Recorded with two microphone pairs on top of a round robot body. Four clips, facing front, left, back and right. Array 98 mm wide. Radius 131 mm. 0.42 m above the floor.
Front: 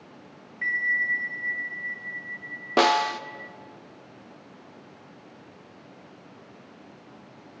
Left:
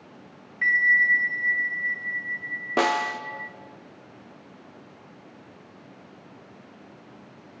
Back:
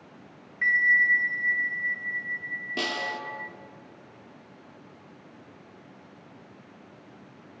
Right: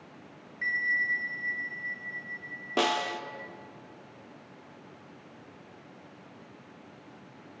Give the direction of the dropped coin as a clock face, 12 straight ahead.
No dropped coin in this recording.